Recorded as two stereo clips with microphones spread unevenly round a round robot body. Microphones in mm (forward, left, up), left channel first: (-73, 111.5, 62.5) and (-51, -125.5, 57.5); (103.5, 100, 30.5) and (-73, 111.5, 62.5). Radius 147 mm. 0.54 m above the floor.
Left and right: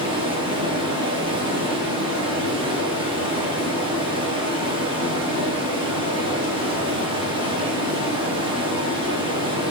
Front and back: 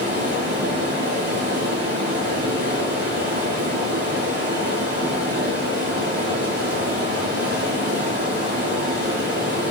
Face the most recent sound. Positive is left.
turn(degrees=-150)